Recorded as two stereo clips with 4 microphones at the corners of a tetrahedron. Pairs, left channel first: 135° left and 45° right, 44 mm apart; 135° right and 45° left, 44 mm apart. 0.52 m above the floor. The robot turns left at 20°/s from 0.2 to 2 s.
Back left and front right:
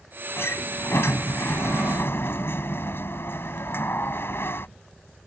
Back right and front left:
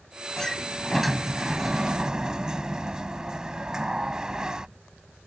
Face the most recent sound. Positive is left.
turn(degrees=115)